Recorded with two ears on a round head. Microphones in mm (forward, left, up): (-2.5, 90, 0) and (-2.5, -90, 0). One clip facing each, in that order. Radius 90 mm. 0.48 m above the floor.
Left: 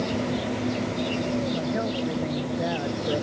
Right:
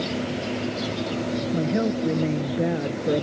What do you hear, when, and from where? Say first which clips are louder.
1.5 s a woman speaking: right 4 dB; 45° right (ahead or behind)